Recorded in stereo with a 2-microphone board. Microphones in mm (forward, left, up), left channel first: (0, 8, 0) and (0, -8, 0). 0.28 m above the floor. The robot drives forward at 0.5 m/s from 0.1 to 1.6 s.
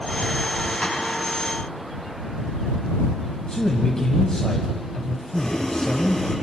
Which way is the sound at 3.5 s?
50° left (ahead or behind).